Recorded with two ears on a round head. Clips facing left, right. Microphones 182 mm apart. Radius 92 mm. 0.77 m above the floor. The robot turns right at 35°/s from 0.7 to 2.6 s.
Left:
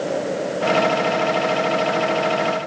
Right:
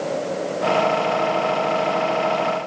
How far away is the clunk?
I don't hear a clunk.